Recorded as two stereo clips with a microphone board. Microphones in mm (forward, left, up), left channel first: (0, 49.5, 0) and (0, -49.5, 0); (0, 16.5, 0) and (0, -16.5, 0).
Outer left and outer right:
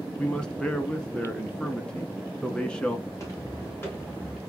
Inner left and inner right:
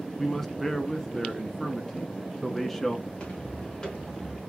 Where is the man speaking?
10° left (ahead or behind), 1.1 m.